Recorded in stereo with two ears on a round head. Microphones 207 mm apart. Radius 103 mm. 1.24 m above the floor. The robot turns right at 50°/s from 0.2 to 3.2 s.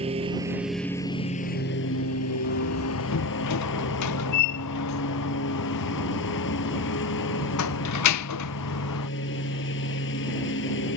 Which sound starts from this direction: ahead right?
A lawn mower, at 0.0 s.